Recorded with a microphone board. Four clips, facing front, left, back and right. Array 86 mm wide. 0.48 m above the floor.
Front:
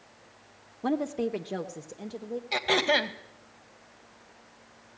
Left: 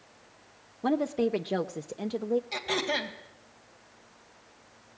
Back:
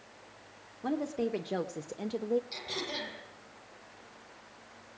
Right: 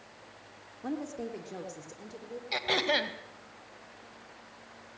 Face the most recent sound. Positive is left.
turn(degrees=-10)